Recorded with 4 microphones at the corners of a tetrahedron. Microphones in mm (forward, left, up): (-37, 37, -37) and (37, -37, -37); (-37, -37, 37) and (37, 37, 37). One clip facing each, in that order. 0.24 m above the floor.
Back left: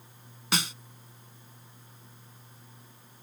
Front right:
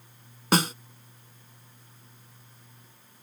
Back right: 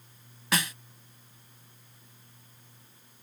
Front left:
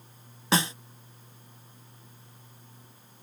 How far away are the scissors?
I don't hear scissors.